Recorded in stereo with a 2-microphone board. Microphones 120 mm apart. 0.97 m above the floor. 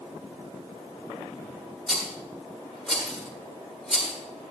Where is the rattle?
Centre (ahead or behind), 6.5 m.